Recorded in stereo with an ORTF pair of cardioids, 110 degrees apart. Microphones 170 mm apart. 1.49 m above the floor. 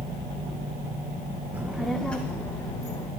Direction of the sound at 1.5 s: 10° right.